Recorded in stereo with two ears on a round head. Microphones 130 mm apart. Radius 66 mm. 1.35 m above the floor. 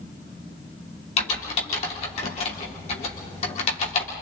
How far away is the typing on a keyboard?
About 3.5 m.